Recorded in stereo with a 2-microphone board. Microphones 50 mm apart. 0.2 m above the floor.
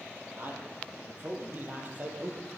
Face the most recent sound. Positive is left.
turn(degrees=-35)  # may be behind; listen again after turning